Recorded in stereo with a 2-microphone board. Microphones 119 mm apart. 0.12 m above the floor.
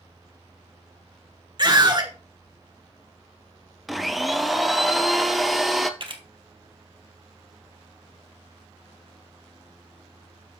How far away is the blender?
About 0.7 m.